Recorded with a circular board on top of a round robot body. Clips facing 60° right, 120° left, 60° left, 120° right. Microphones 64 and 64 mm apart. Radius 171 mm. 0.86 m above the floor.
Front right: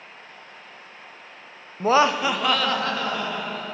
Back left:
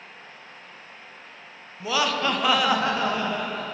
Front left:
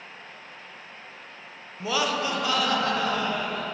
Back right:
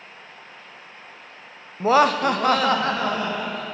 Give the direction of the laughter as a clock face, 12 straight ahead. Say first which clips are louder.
Front right 6 dB, back right 9 dB; 3 o'clock.